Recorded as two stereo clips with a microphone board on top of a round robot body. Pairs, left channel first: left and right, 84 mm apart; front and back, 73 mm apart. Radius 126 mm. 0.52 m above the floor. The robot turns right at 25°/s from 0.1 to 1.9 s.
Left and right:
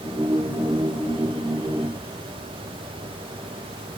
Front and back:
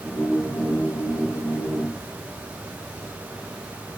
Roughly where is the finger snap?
No finger snap in this recording.